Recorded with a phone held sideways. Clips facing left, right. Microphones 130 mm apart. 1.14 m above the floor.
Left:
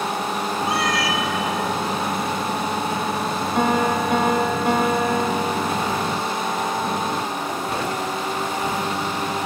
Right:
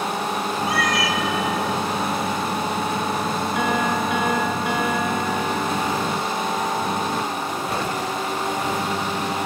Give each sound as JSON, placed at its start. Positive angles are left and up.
{"t": 0.7, "sound": "a cat meowing", "side_deg": 30, "distance_m": 1.0}
{"t": 3.5, "sound": "a piano", "side_deg": 40, "distance_m": 1.4}